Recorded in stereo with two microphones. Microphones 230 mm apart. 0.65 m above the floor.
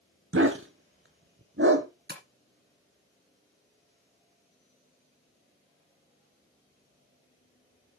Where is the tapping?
45° right (ahead or behind), 1.6 m.